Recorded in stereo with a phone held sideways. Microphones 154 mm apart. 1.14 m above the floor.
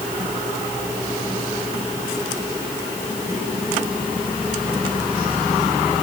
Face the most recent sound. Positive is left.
No sound to turn to.